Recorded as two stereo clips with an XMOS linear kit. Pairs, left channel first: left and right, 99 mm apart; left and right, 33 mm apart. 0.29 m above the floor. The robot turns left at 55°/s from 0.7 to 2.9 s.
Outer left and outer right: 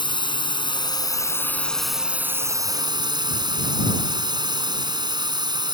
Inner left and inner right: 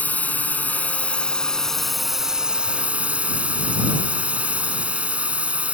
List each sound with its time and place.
0.0 s a drone: 65° left; by 5.7 s 55° right